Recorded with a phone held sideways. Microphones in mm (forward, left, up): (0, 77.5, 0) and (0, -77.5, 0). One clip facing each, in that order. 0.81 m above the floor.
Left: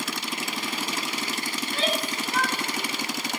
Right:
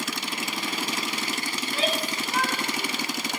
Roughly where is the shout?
Centre.